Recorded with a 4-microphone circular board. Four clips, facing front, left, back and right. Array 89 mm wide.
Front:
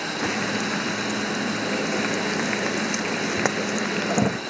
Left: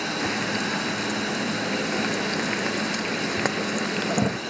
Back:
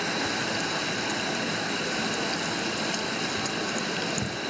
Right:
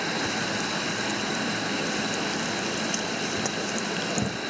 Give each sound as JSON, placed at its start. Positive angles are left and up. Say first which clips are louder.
{"t": 0.2, "sound": "frying", "louder": "left 2 dB, front 4 dB", "azimuth_deg": 25}